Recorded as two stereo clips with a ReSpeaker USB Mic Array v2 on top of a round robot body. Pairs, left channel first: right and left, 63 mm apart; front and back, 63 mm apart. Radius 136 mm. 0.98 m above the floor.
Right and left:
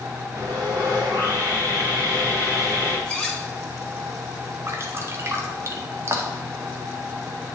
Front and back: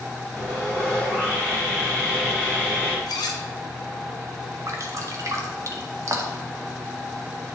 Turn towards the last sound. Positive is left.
turn(degrees=140)